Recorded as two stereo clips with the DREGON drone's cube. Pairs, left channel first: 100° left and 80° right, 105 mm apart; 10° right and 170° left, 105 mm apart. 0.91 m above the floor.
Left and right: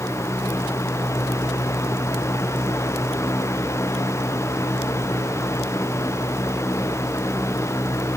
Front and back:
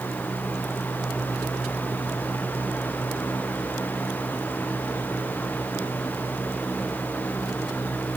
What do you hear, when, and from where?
Only background noise.